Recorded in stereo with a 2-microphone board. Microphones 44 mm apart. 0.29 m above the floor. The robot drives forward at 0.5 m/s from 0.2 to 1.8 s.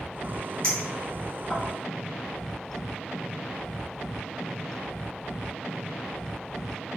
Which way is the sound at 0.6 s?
20° left (ahead or behind).